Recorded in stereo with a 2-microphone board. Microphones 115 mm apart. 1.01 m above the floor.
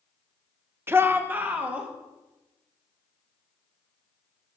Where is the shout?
20° right (ahead or behind), 0.6 m; by 1.9 s 15° right (ahead or behind), 1.9 m.